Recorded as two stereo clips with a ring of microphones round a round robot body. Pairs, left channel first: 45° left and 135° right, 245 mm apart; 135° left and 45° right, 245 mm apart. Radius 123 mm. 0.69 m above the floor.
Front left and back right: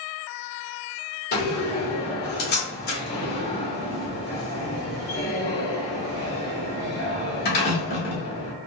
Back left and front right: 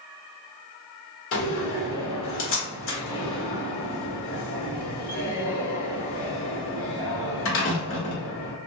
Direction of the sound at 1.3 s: 95° left.